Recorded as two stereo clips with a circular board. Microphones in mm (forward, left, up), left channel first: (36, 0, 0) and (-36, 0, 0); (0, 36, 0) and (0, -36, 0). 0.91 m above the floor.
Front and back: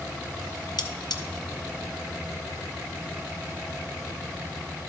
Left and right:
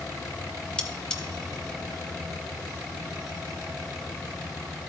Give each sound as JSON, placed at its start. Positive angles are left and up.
{"t": 0.8, "sound": "cutlery clinking", "azimuth_deg": 10, "distance_m": 0.7}